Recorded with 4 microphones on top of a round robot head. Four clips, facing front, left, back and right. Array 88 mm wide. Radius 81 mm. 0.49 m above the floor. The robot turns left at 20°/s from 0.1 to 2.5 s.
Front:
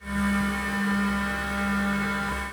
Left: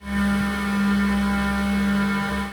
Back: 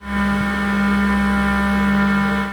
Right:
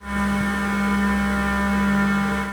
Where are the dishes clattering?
I don't hear dishes clattering.